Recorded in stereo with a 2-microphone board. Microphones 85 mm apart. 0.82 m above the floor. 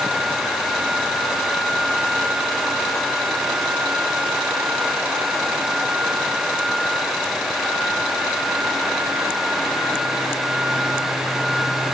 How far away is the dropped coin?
I don't hear a dropped coin.